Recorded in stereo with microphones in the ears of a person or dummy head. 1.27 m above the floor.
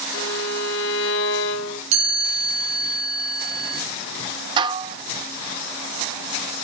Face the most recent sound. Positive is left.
turn(degrees=-30)  # may be behind; listen again after turning